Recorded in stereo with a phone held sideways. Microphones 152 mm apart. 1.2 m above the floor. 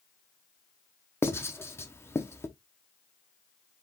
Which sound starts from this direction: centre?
Writing, at 1.2 s.